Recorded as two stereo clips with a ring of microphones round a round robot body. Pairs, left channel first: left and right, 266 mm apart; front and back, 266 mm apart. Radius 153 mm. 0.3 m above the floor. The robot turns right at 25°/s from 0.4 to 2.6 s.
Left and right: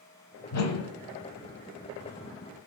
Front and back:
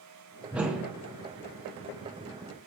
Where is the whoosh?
90° left, 1.3 m; by 0.9 s 100° left, 1.3 m.